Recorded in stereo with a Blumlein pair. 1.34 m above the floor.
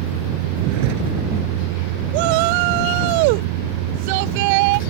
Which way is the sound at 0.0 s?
45° right.